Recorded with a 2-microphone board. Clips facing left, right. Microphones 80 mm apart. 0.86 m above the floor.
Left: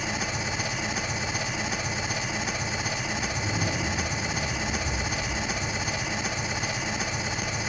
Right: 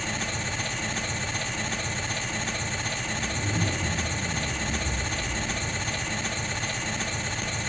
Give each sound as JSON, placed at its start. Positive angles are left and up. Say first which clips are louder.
{"t": 0.0, "sound": "an engine running", "louder": "left 1 dB", "side_deg": 10, "distance_m": 1.1}
{"t": 3.2, "sound": "a zipper", "louder": "right 2 dB", "side_deg": -5, "distance_m": 7.5}